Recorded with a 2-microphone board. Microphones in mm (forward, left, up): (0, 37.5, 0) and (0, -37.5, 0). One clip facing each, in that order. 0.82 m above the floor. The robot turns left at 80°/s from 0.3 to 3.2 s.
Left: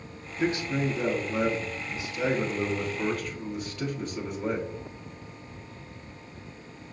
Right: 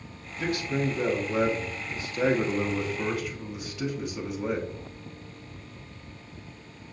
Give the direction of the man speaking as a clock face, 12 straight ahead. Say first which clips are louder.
Left 1 dB; 10 o'clock.